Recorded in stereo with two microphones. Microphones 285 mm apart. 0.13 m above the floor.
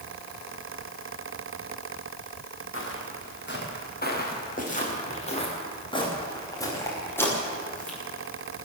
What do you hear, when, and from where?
2.7 s footsteps: 50° left (ahead or behind), 7 m; by 8.0 s 5° left (ahead or behind), 9 m